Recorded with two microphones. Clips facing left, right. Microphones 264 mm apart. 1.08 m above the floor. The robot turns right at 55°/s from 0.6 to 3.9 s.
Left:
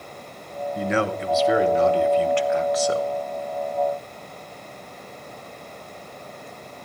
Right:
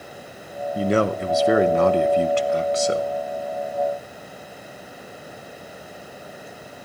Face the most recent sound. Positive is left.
turn(degrees=30)